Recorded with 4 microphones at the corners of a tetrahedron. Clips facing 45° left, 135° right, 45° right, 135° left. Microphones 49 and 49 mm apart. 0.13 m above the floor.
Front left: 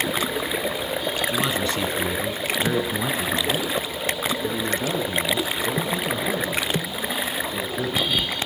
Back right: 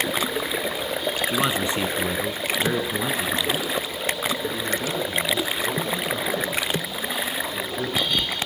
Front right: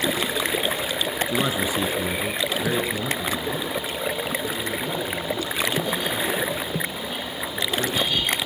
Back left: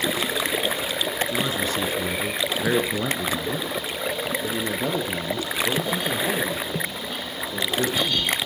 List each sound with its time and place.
1.3 s a man speaking: 90° right, 1.4 m; by 8.4 s 115° left, 5 m